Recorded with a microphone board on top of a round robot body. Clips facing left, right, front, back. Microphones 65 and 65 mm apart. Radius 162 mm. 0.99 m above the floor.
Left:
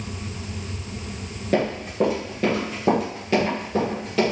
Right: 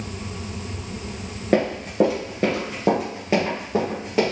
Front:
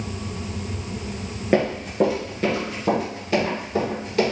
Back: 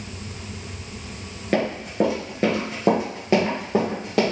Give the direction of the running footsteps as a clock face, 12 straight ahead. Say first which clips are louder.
Right 3 dB, front 2 dB; 2 o'clock.